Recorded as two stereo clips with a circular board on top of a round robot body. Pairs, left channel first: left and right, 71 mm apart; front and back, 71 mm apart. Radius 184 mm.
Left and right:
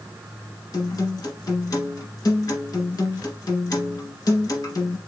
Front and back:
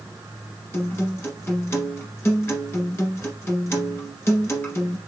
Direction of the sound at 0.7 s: 55° left.